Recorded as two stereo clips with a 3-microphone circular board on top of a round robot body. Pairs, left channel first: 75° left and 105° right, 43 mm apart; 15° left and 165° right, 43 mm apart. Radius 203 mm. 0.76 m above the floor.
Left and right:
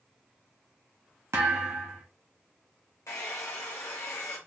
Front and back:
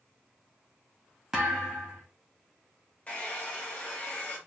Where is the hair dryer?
80° left, 0.8 m.